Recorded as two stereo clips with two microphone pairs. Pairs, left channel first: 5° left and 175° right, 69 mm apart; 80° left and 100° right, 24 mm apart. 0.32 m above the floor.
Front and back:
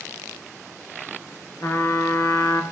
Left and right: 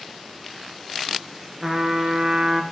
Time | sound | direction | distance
1.6 | a trumpet | 30° right | 1.4 m